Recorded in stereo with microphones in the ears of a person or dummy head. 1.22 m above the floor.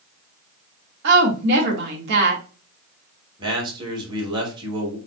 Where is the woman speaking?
70° right (ahead or behind), 1.8 m.